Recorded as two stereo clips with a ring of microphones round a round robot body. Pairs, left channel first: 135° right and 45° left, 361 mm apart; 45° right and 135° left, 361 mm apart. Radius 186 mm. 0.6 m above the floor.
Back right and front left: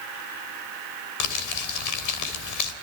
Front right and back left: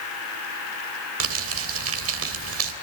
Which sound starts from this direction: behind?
Crumpling, at 1.2 s.